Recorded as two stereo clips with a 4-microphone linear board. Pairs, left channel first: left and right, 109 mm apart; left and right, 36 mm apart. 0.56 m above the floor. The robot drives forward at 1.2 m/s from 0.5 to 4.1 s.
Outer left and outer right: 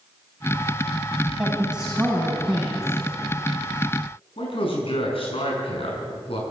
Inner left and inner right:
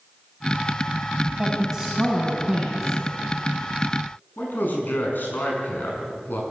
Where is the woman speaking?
10° right (ahead or behind), 3.5 m; by 2.9 s 5° right (ahead or behind), 5 m.